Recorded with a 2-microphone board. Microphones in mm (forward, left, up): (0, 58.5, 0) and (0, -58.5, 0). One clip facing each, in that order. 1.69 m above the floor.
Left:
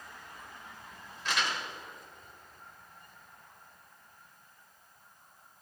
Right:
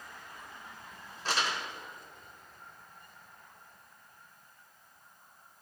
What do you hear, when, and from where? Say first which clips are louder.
1.2 s crumpling: even; 40° right (ahead or behind), 1.7 m